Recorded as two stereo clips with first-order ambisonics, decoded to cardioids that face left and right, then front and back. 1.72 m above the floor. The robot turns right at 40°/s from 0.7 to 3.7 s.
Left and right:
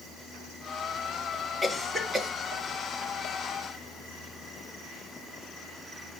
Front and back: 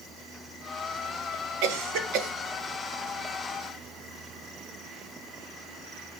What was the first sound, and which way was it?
A cough, 175° left.